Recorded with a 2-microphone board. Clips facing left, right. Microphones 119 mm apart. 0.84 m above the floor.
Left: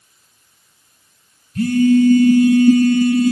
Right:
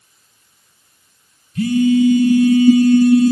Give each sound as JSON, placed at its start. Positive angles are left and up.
{"t": 1.6, "sound": "a phone buzzing", "side_deg": 50, "distance_m": 0.7}